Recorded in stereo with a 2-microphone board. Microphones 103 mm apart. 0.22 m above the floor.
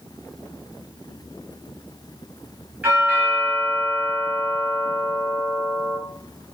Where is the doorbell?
15° right (ahead or behind), 1.8 m.